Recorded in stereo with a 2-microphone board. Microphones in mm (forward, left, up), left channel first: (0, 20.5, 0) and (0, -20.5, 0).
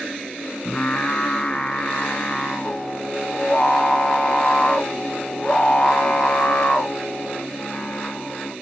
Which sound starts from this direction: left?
Singing, at 0.7 s.